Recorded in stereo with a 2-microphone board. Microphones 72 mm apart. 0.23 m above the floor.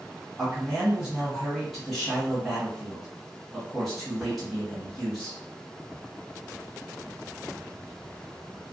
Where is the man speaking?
Centre (ahead or behind), 1.0 m.